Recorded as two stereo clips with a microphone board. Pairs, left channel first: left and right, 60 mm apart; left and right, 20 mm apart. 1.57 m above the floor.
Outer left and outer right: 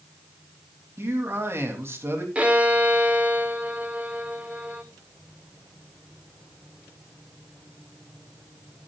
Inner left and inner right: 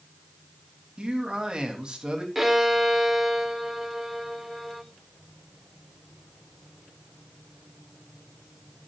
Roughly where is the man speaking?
Right.